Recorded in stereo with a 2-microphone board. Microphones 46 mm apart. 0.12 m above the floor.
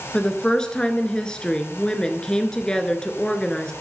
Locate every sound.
0.1 s a woman speaking: 15° left (ahead or behind), 1.5 m